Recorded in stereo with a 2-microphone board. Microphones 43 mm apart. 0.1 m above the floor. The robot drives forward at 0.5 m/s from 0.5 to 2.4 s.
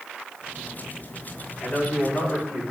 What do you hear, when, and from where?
1.6 s a man speaking: 60° left (ahead or behind), 5.5 m